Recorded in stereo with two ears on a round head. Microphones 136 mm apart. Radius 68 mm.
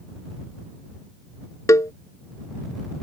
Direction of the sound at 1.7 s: 20° left (ahead or behind).